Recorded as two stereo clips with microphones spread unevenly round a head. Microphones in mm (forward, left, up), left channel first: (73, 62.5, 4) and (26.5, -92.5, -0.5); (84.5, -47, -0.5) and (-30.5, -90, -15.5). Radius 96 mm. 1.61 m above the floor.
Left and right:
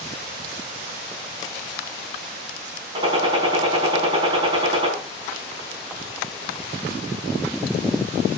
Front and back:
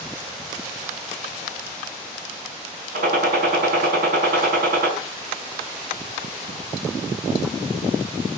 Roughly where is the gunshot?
Behind.